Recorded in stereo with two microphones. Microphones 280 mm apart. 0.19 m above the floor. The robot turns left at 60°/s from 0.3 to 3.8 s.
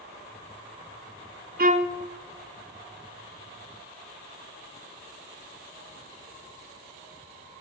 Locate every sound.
1.6 s a violin: 35° right (ahead or behind), 0.9 m; by 2.0 s 10° right (ahead or behind), 0.9 m